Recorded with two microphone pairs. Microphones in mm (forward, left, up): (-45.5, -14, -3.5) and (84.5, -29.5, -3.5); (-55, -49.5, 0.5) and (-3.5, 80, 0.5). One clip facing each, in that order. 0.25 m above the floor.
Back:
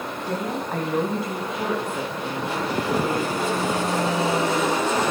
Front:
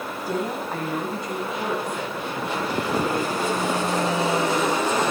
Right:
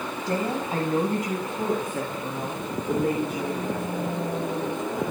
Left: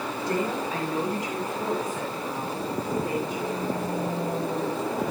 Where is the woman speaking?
85° right, 1.3 m; by 4.2 s 110° right, 4.5 m.